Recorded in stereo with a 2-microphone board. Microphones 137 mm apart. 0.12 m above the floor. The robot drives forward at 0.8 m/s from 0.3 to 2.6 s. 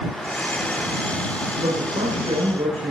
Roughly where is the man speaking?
Right.